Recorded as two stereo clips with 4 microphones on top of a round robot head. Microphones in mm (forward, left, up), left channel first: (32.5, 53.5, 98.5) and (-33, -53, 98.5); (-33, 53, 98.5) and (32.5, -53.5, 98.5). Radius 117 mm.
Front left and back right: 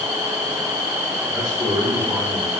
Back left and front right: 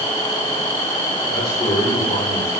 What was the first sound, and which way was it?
A man speaking, straight behind.